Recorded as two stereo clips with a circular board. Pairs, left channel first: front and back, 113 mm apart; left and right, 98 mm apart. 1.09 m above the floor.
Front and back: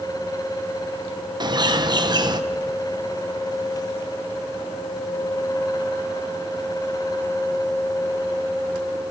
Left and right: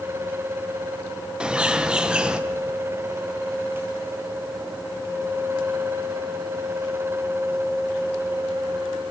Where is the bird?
165° right, 0.9 m.